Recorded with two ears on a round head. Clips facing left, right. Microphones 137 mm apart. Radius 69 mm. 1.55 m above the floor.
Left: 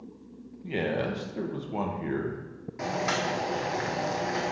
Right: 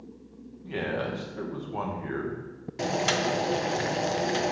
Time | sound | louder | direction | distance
0.6 | a man speaking | left 2 dB | 20° left (ahead or behind) | 1.0 m
2.8 | boiling | right 2 dB | 30° right (ahead or behind) | 0.7 m